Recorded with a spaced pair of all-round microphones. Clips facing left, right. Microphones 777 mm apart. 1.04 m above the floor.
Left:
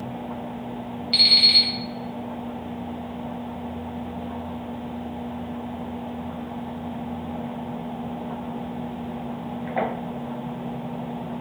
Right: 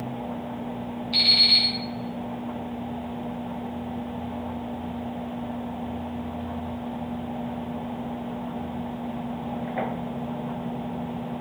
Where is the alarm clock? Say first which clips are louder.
Even; 40° left (ahead or behind), 0.8 m.